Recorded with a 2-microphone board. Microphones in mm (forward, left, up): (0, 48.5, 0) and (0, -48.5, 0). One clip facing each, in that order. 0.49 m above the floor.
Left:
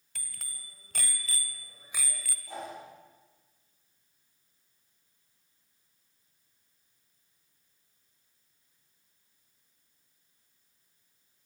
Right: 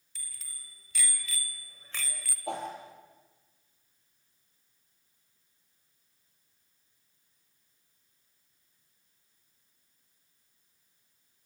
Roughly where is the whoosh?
Right.